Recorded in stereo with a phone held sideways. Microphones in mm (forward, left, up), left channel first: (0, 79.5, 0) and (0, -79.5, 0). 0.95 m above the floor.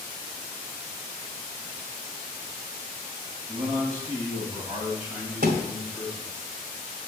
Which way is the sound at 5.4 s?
75° right (ahead or behind).